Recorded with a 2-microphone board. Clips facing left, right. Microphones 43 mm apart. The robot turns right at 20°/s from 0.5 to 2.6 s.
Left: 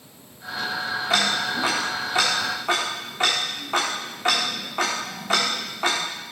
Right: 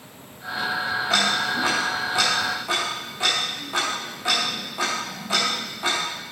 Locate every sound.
1.1 s ticking: 10° left (ahead or behind), 2.5 m; by 6.0 s 40° left (ahead or behind), 2.5 m